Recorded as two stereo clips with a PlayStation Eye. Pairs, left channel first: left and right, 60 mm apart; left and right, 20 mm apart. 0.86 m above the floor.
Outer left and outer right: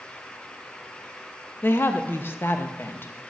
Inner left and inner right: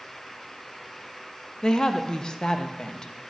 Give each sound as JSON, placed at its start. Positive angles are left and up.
{"t": 1.6, "sound": "a woman speaking", "side_deg": 35, "distance_m": 0.5}